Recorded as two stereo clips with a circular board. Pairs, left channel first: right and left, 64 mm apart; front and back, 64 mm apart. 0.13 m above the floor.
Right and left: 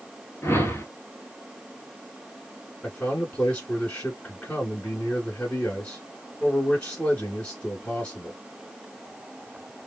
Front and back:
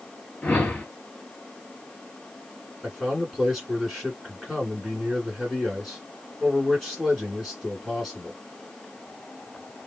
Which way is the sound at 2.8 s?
90° right.